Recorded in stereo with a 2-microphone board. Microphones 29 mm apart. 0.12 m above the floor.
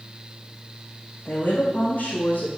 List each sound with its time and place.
1.2 s a woman speaking: 75° left (ahead or behind), 4.5 m